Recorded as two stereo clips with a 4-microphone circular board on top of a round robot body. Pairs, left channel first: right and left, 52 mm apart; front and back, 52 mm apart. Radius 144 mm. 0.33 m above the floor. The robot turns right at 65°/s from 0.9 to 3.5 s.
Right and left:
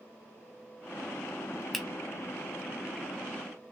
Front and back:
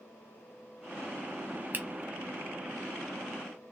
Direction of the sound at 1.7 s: Straight behind.